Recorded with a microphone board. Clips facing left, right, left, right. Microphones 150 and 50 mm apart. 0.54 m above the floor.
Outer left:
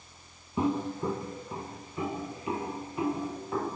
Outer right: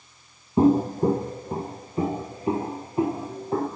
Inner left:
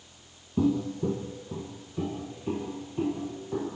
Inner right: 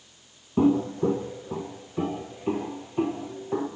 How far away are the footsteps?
About 0.7 m.